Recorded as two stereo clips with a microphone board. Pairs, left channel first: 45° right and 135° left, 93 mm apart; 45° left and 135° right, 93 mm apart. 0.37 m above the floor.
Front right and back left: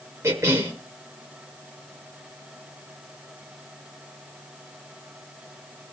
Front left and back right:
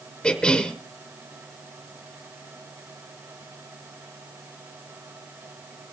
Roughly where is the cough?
Behind left.